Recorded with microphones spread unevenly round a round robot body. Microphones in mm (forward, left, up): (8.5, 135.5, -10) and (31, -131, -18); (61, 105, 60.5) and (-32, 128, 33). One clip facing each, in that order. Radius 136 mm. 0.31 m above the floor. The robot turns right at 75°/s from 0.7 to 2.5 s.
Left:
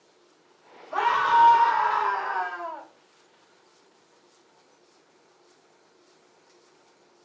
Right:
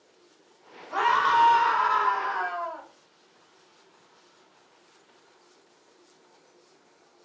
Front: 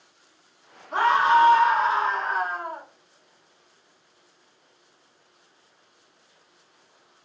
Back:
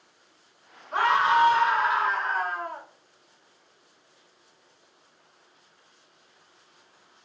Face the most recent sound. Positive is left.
turn(degrees=80)